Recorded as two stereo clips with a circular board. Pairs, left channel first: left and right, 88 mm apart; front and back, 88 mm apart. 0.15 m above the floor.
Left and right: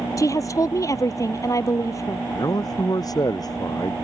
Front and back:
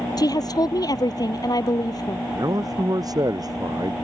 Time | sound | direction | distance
0.2 | a woman speaking | 40° left | ?
2.4 | a man speaking | 135° left | ?